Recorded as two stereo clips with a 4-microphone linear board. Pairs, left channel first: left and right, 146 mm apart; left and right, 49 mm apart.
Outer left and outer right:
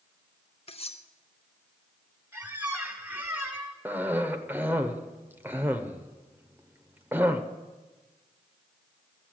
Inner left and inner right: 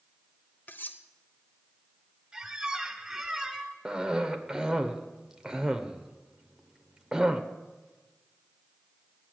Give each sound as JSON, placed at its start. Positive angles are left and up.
{"t": 0.7, "sound": "cutlery clinking", "side_deg": 40, "distance_m": 0.7}
{"t": 2.3, "sound": "a squeak", "side_deg": -15, "distance_m": 1.6}
{"t": 3.9, "sound": "a cough", "side_deg": -15, "distance_m": 0.9}